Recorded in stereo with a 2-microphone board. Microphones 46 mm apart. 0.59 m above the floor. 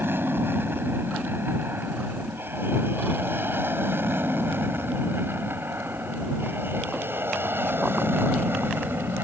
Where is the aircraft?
55° right (ahead or behind); by 9.2 s 60° right (ahead or behind).